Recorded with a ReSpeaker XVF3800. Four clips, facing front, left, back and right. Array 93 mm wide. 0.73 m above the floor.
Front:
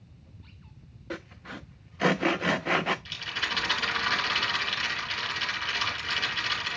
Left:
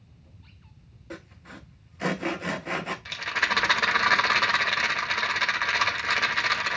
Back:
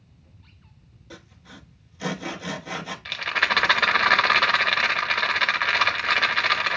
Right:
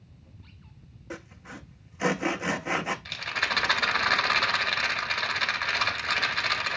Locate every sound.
1.1 s sawing: 15° right, 0.6 m
3.0 s a rattle: 165° left, 1.0 m